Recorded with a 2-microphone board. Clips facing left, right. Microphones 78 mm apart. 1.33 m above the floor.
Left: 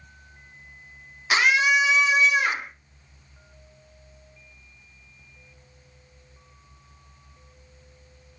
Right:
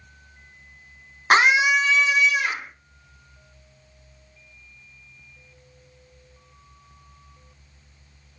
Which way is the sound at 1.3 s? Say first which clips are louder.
Right 3 dB; 50° right (ahead or behind).